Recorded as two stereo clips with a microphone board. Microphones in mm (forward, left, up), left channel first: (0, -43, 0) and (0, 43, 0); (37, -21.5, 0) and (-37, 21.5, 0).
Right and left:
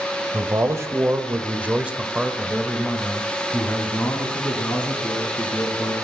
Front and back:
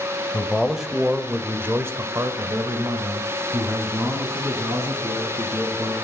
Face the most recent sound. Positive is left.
turn(degrees=-160)